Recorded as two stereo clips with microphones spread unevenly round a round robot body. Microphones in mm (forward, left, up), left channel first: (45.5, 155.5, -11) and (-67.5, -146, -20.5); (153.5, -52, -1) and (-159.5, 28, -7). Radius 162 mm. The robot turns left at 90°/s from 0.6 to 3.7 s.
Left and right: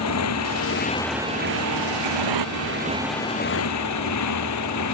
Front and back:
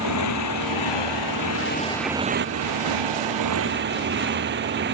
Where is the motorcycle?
25° left; by 4.9 s 105° left.